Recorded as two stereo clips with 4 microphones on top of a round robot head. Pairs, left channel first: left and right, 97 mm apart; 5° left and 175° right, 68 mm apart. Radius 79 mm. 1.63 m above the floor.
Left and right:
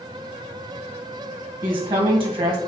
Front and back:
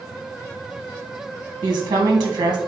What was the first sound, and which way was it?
A woman speaking, 140° right.